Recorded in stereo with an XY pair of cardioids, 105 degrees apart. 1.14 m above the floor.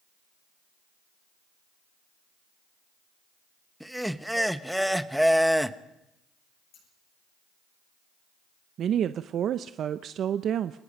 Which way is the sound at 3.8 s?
Straight ahead.